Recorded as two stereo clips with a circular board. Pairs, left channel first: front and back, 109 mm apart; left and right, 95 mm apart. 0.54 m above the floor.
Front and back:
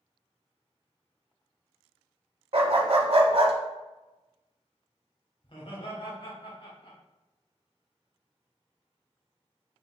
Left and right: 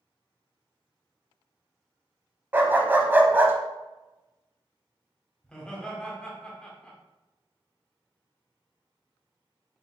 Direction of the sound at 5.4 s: 10° left.